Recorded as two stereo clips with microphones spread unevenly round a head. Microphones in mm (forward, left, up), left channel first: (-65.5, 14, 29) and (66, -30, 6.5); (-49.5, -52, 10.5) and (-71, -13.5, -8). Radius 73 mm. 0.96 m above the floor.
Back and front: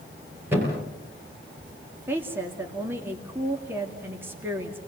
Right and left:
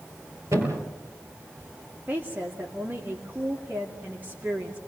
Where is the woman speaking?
55° left, 2 m.